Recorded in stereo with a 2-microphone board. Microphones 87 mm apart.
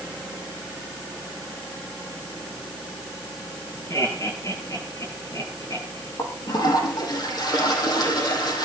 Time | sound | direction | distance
3.9 | laughter | 35° left (ahead or behind) | 8 m
6.2 | a toilet flushing | 50° left (ahead or behind) | 5 m